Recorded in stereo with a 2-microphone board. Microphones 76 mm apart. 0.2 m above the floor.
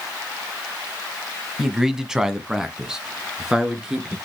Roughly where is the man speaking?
Centre.